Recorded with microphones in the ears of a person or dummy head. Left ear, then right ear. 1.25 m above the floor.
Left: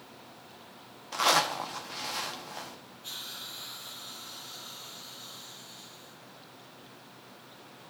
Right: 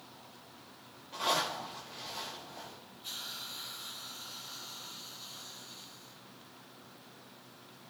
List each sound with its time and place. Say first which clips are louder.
1.1 s a zipper: left 6 dB; 55° left (ahead or behind), 1.0 m
3.0 s a hiss: left 1 dB; 5° left (ahead or behind), 3.5 m